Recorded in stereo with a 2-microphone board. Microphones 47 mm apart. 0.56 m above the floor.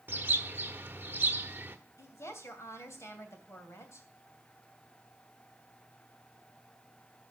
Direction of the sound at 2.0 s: 70° left (ahead or behind).